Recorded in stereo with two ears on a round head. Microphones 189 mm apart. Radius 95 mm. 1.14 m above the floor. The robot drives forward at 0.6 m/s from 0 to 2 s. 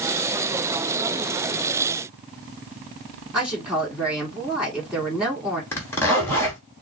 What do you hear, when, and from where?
3.3 s a woman speaking: 5° right (ahead or behind), 3 m
5.7 s a zipper: 10° left (ahead or behind), 3 m